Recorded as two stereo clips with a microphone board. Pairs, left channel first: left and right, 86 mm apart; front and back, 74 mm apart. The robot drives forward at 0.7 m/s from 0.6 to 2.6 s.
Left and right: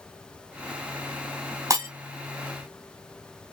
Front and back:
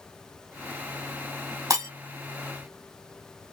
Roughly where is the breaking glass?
Behind right.